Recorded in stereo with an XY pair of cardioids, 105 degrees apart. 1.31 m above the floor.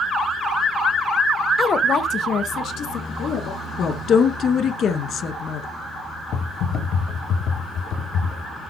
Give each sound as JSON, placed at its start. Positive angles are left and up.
{"t": 1.6, "sound": "a woman speaking", "azimuth_deg": 35, "distance_m": 0.6}
{"t": 3.8, "sound": "a woman speaking", "azimuth_deg": 60, "distance_m": 1.4}
{"t": 6.3, "sound": "typing on a keyboard", "azimuth_deg": 70, "distance_m": 2.0}